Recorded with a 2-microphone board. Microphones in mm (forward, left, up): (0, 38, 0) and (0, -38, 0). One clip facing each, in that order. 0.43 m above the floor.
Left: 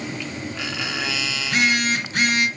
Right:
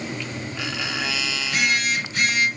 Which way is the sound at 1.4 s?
55° left (ahead or behind).